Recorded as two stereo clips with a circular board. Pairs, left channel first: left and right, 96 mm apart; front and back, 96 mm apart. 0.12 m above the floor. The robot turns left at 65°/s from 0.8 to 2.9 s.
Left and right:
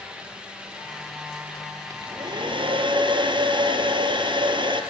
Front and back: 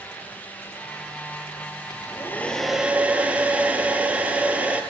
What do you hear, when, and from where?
1.9 s a hair dryer: 40° right, 3 m; by 4.8 s 105° right, 3 m